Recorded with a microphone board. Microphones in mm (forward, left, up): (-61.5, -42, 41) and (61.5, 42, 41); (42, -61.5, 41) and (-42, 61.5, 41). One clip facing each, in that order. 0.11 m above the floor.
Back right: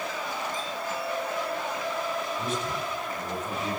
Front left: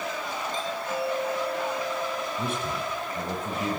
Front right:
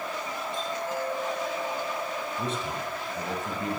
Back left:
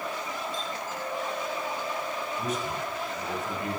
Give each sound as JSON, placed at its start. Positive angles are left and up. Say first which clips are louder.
{"t": 0.5, "sound": "a doorbell", "louder": "front left 2 dB, front right 3 dB", "azimuth_deg": -30, "distance_m": 7.0}
{"t": 2.4, "sound": "a man speaking", "louder": "front left 1 dB, back left 1 dB", "azimuth_deg": 5, "distance_m": 5.0}